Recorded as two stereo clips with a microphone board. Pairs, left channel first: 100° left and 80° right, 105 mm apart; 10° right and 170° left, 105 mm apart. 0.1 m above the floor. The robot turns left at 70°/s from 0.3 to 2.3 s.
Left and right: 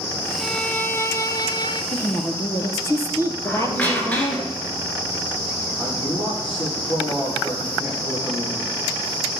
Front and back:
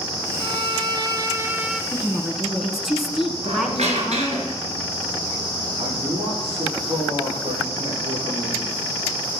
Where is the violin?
175° right, 0.5 m; by 1.8 s 90° left, 0.5 m.